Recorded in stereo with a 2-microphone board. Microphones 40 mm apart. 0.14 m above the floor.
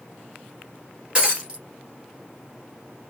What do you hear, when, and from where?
1.1 s breaking glass: 25° right (ahead or behind), 1.7 m